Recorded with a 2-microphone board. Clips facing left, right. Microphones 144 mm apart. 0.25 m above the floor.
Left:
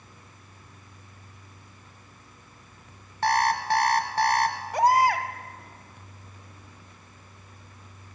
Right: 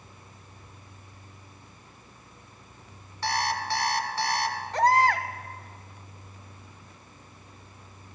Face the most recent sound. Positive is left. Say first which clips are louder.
# left 1 dB
turn(degrees=10)  # may be behind; listen again after turning